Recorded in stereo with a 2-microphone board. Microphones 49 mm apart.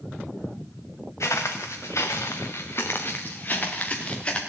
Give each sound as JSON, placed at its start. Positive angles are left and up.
{"t": 1.2, "sound": "footsteps", "side_deg": 80, "distance_m": 2.5}